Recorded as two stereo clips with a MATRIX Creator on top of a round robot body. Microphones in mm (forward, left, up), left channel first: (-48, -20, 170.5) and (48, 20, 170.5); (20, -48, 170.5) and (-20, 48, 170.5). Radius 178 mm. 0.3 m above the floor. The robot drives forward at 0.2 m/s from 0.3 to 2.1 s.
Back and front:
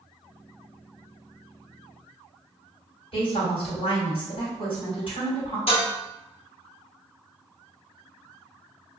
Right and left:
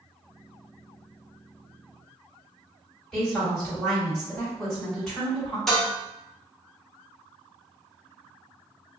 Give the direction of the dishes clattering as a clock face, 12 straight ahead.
5 o'clock.